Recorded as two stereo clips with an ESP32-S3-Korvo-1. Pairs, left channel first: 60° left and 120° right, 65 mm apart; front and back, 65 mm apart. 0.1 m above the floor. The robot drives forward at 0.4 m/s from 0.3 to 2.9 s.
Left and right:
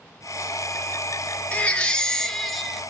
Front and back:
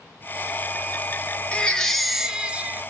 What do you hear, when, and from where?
1.5 s a baby crying: 35° left, 0.6 m; by 2.9 s 155° left, 0.7 m